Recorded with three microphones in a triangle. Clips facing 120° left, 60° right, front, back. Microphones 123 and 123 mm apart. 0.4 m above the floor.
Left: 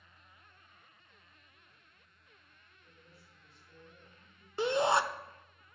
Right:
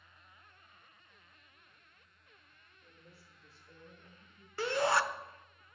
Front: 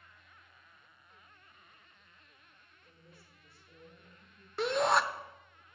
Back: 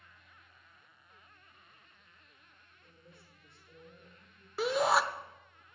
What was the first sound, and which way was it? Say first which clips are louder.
A woman speaking: right 2 dB, back 1 dB; 115° right.